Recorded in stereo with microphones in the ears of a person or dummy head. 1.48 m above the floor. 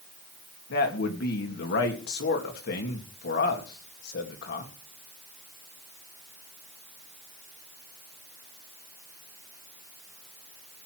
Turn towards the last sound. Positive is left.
turn(degrees=55)  # may be behind; listen again after turning